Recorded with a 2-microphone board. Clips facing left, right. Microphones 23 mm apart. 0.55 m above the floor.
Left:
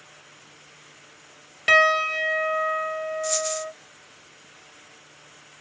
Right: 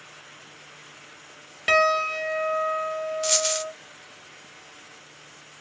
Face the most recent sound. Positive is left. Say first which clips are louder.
# right 6 dB
turn(degrees=-75)  # may be behind; listen again after turning